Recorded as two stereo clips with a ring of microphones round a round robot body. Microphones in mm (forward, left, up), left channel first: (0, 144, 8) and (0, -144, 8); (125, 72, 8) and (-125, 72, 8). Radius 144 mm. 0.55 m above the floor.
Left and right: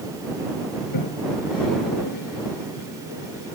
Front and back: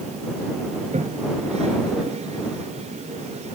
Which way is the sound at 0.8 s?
115° left.